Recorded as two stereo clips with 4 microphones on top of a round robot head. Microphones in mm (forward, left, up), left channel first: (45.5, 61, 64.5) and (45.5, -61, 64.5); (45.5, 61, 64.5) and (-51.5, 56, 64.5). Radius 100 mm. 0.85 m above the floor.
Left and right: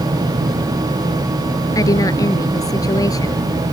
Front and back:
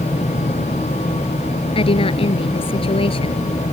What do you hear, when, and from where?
1.8 s a woman speaking: 30° left